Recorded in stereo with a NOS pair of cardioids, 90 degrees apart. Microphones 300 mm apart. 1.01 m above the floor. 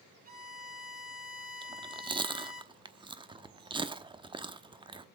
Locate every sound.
0.2 s a violin: 30° right, 3 m
1.6 s chewing: 15° right, 1.0 m